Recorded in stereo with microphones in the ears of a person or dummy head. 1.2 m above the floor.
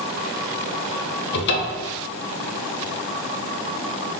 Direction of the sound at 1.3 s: 60° left (ahead or behind).